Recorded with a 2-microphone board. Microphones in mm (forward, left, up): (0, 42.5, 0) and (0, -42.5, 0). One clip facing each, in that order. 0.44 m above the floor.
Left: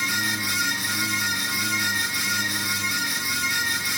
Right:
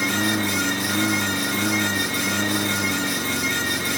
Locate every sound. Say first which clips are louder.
0.0 s a lawn mower: right 5 dB; 55° right (ahead or behind)